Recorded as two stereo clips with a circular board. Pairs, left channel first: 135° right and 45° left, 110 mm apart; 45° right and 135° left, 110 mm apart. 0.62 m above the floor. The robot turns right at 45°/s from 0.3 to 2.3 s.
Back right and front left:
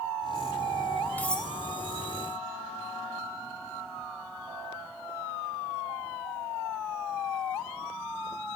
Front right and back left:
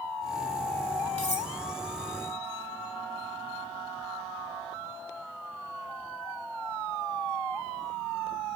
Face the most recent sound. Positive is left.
turn(degrees=-10)